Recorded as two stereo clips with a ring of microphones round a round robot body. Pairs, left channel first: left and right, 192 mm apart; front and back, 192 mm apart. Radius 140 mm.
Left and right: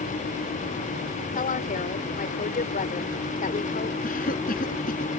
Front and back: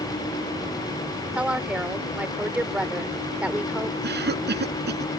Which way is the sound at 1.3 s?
100° left.